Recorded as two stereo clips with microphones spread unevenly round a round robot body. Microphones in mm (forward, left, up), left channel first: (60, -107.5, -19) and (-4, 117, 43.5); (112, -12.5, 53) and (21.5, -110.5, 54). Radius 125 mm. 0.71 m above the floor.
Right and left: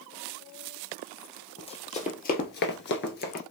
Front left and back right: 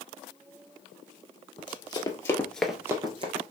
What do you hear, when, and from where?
1.6 s running footsteps: straight ahead, 1.4 m; by 3.4 s 135° right, 0.9 m